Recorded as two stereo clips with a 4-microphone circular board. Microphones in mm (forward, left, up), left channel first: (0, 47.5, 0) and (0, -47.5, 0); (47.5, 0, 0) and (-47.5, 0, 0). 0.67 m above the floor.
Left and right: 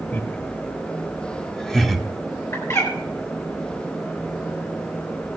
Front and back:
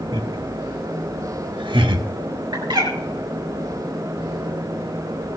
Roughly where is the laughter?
Behind left.